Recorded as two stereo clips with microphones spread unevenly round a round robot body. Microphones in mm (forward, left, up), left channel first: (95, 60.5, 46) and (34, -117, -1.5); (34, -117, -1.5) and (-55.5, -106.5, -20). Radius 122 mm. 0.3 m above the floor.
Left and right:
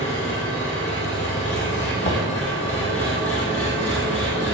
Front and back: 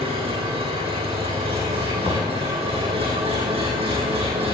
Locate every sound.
0.0 s an engine running: 135° left, 8 m
2.0 s knocking: 40° left, 2 m